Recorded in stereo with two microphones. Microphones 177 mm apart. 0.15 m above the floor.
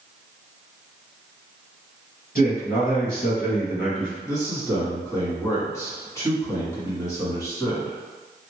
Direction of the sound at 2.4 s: 55° left (ahead or behind).